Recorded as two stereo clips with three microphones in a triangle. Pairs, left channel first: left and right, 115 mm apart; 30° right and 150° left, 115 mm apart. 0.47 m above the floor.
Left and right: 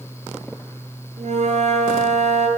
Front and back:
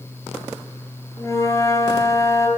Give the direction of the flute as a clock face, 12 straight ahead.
3 o'clock.